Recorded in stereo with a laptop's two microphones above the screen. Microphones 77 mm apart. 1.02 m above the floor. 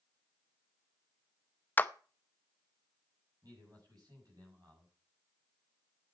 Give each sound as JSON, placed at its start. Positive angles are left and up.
{"t": 1.8, "sound": "a clap", "side_deg": 25, "distance_m": 0.7}
{"t": 3.4, "sound": "a man speaking", "side_deg": -60, "distance_m": 7.0}